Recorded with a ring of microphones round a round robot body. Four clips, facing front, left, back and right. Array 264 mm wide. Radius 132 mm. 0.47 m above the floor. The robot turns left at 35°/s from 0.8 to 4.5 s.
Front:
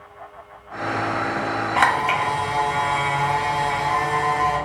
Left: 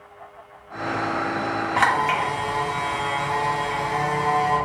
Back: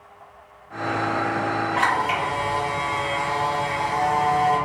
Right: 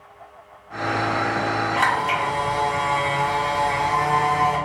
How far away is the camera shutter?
About 1.2 m.